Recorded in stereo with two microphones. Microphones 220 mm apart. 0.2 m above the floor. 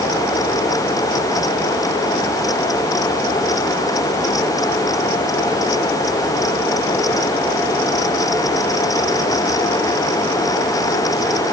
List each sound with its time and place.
Only background noise.